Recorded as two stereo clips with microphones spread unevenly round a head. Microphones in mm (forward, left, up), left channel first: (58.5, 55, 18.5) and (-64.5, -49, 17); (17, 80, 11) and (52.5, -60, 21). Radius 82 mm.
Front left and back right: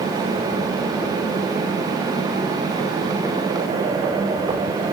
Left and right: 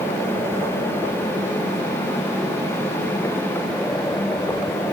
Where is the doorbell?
I don't hear a doorbell.